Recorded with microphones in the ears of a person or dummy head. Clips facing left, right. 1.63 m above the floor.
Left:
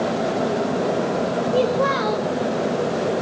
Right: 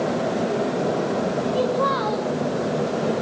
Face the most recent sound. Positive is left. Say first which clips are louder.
# left 4 dB
turn(degrees=35)  # may be behind; listen again after turning